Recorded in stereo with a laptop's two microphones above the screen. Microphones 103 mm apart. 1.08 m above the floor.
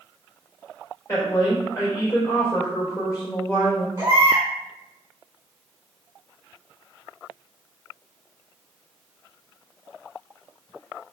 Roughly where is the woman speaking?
Left.